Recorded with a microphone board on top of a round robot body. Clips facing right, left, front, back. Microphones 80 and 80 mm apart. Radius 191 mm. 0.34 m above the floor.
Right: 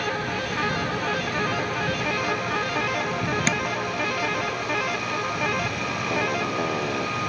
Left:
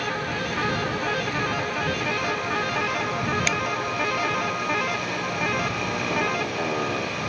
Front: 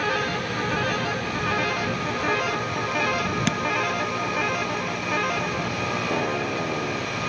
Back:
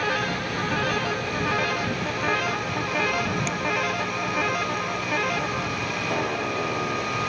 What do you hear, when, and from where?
3.5 s tapping: 30° right